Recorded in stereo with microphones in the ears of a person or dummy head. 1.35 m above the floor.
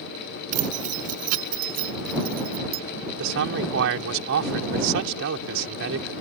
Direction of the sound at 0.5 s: 40° right (ahead or behind).